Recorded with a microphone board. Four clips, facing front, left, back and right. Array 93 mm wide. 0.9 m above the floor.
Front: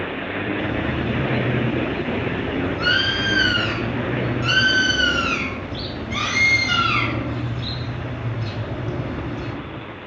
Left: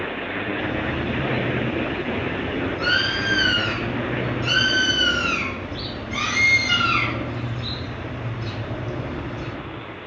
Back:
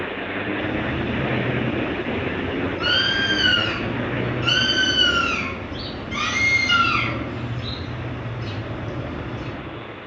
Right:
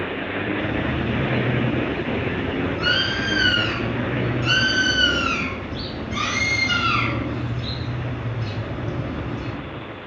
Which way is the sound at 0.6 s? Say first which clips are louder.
Right 1 dB, front 1 dB; 5° right.